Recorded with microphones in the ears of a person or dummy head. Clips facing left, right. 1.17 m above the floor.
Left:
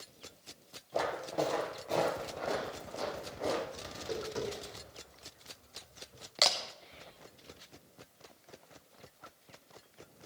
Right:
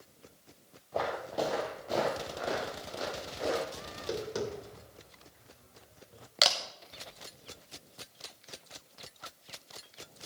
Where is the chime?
No chime in this recording.